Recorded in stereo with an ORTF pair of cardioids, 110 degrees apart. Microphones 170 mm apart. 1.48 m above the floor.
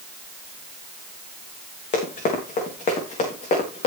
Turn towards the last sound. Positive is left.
turn(degrees=40)